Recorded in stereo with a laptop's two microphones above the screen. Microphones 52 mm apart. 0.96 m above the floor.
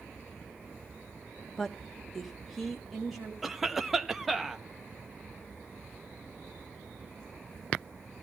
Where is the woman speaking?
10° left (ahead or behind), 0.8 m; by 3.3 s centre (ahead or behind), 2.5 m.